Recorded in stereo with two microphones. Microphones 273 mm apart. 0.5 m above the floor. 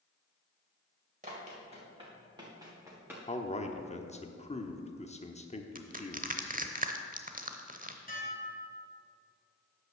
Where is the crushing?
30° right (ahead or behind), 0.8 m.